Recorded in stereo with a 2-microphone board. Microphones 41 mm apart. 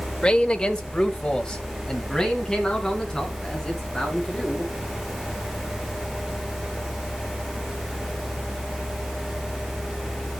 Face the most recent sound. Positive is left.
turn(degrees=15)  # may be behind; listen again after turning